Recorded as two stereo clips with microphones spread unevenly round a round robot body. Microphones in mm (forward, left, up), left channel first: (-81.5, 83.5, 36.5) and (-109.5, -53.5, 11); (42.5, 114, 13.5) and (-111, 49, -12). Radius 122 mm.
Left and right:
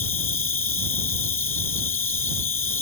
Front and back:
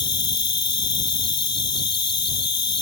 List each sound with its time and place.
0.0 s an insect: 20° left